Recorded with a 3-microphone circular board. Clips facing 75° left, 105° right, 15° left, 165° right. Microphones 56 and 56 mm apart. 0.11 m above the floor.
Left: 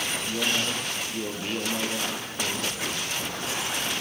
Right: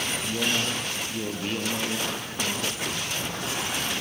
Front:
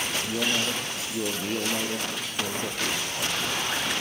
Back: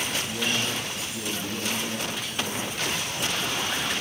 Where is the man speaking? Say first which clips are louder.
Even, front 1 dB; 20° right, 2.5 m.